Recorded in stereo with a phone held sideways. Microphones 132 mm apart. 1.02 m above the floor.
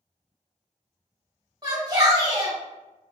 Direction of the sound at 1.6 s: 30° right (ahead or behind).